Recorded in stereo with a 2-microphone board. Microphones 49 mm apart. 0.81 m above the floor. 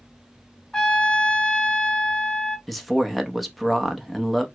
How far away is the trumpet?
About 0.5 m.